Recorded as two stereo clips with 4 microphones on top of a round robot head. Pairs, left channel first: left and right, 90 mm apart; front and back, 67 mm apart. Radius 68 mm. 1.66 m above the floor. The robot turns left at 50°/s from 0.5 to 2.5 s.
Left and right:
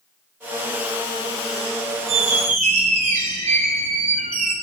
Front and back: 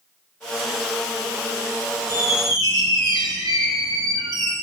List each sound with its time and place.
2.1 s a squeak: 105° right, 1.1 m; by 4.5 s 125° right, 1.1 m